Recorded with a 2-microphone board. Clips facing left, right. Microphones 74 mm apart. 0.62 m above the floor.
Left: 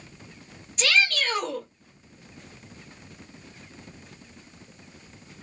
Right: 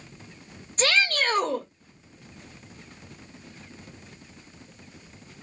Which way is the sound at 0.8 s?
40° right (ahead or behind).